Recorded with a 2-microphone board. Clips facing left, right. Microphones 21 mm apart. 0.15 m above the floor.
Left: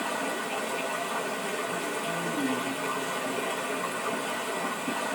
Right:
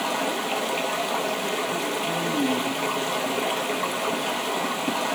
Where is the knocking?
No knocking in this recording.